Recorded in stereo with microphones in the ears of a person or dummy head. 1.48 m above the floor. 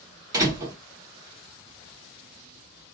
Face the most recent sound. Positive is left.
turn(degrees=-20)  # may be behind; listen again after turning